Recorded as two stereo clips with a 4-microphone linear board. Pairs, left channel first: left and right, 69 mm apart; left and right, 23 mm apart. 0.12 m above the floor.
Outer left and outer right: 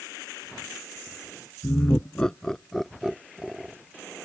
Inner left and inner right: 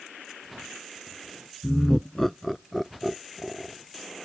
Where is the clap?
I don't hear a clap.